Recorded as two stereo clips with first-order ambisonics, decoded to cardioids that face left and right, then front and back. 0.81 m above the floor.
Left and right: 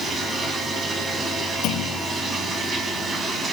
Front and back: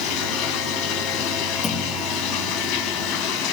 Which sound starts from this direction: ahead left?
A clunk, at 1.6 s.